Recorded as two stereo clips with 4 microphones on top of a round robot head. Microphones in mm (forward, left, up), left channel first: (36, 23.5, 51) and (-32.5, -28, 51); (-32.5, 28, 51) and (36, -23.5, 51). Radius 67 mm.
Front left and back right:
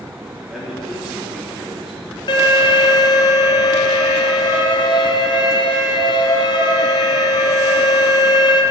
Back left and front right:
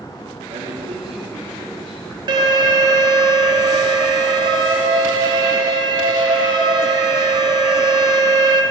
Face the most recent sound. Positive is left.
turn(degrees=0)